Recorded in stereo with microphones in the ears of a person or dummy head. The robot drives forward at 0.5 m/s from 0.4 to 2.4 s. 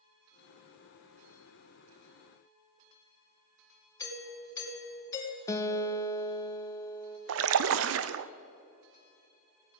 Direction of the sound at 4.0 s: 20° left (ahead or behind).